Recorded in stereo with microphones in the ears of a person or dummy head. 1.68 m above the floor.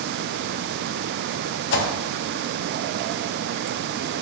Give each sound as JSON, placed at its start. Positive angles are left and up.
{"t": 1.7, "sound": "a whoosh", "side_deg": 70, "distance_m": 0.6}